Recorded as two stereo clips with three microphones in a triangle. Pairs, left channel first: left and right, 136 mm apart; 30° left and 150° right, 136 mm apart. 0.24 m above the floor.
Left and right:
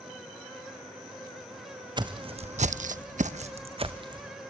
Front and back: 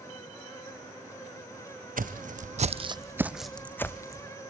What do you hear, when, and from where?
2.0 s footsteps: 150° right, 0.9 m; by 4.3 s 35° right, 1.2 m